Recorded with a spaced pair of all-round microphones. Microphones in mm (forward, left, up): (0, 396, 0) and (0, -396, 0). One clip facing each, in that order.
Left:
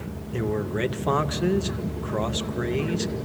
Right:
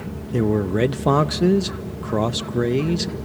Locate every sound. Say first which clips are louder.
0.3 s a man speaking: right 7 dB; 70° right (ahead or behind), 0.7 m